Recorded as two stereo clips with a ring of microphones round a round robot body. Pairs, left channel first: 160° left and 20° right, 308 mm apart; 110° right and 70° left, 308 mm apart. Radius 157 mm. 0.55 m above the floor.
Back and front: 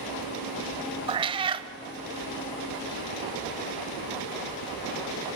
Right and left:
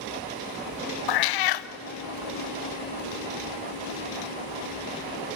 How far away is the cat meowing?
About 0.5 m.